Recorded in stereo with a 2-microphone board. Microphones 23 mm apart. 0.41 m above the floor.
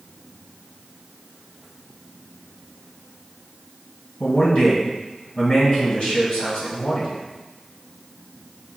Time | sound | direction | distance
4.2 | a man speaking | 65° left (ahead or behind) | 2 m